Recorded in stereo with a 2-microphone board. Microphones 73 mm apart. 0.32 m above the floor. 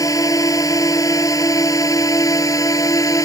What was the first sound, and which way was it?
A drone, 55° left (ahead or behind).